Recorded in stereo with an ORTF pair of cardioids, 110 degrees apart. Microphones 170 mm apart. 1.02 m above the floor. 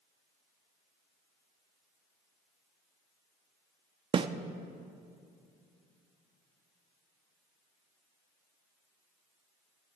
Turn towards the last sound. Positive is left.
turn(degrees=-30)